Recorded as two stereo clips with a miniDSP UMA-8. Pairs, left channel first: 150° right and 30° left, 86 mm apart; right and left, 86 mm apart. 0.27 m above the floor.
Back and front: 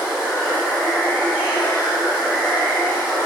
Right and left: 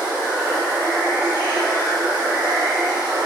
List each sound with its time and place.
0.0 s running water: 120° left, 1.7 m